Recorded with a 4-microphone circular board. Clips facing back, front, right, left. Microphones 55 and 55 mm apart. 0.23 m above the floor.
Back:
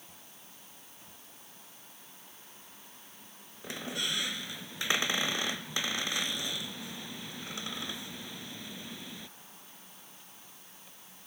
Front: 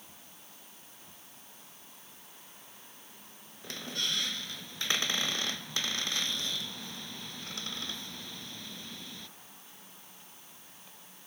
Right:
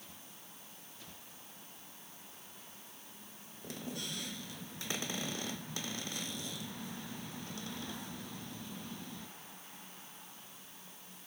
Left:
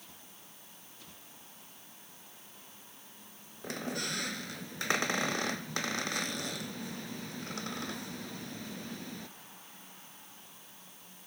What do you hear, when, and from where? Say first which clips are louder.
3.6 s a squeak: back 1 dB, left 6 dB; 105° left